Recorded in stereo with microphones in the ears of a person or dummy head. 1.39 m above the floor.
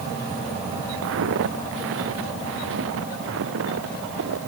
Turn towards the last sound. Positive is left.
turn(degrees=-70)  # may be behind; listen again after turning